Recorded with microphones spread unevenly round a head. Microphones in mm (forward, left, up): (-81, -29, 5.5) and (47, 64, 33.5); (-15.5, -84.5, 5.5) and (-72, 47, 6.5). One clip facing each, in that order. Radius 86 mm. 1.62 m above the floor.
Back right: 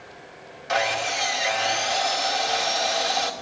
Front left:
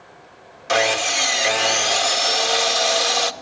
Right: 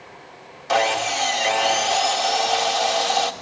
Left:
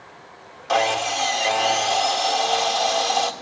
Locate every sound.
0.7 s sawing: 20° left, 1.5 m